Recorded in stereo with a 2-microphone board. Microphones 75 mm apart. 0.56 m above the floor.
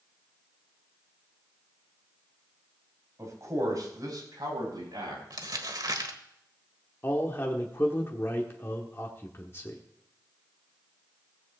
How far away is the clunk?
No clunk in this recording.